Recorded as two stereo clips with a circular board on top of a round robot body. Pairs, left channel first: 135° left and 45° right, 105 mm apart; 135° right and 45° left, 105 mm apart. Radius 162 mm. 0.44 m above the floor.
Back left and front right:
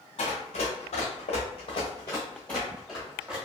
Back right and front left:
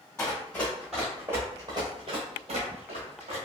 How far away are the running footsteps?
About 1.0 m.